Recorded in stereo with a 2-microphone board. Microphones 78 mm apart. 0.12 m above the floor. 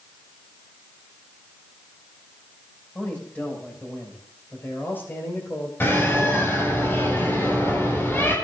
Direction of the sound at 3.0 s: 15° left (ahead or behind).